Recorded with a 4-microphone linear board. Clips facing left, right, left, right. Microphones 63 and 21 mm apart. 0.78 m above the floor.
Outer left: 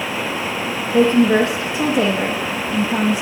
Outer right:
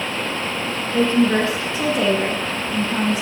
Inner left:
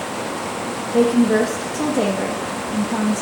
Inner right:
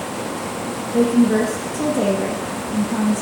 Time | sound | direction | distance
0.9 | a woman speaking | 20° left (ahead or behind) | 0.7 m